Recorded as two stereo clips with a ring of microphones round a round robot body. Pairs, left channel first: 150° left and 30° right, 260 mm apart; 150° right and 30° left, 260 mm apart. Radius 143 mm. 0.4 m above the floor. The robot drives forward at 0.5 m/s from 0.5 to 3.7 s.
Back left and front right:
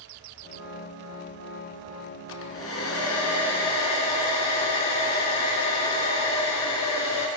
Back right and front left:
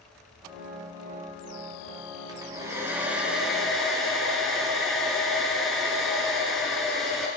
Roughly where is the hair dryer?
Left.